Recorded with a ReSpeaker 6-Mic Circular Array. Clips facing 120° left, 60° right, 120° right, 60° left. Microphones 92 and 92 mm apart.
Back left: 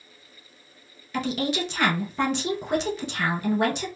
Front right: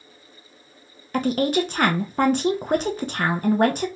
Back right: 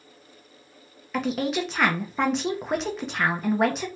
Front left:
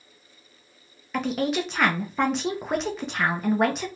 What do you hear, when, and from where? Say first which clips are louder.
1.1 s a woman speaking: front right 6 dB, even; 30° right, 0.6 m